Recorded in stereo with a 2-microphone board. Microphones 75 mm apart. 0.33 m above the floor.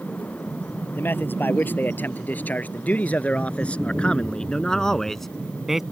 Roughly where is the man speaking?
Left.